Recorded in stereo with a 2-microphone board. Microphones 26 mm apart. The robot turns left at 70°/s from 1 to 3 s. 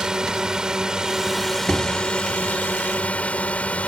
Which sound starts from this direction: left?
A door slam, at 1.7 s.